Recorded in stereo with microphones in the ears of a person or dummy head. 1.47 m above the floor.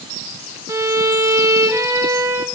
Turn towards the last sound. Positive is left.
turn(degrees=-15)  # may be behind; listen again after turning